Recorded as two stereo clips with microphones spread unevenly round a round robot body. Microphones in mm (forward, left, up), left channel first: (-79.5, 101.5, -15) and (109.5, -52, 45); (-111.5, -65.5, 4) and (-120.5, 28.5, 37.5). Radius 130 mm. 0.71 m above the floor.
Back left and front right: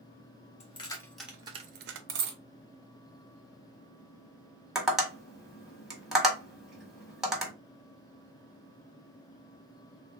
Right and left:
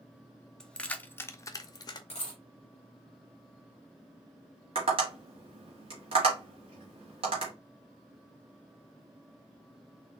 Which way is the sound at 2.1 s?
10° right.